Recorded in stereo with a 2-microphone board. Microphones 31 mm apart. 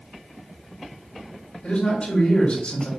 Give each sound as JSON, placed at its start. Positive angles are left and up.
{"t": 1.6, "sound": "a man speaking", "side_deg": 45, "distance_m": 2.0}